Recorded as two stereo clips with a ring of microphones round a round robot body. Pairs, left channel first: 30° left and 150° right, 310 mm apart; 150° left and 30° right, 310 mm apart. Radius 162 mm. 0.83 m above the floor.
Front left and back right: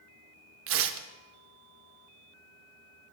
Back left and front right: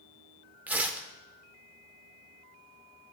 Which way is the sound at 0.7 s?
115° right.